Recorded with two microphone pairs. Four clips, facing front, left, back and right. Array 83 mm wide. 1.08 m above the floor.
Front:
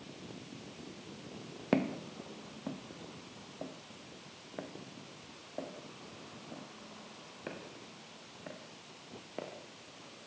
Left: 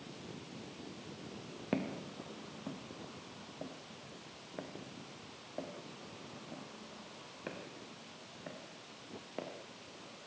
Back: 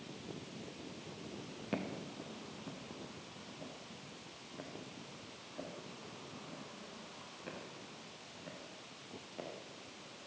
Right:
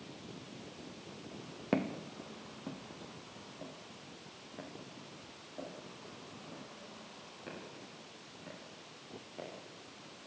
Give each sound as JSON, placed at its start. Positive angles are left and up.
{"t": 1.7, "sound": "footsteps", "azimuth_deg": -10, "distance_m": 1.6}